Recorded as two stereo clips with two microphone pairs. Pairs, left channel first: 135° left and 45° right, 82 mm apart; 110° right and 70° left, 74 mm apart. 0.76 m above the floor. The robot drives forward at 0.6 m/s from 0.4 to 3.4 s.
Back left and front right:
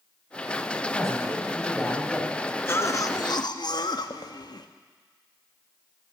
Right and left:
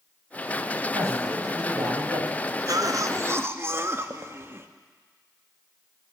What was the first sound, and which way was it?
A man speaking, 40° left.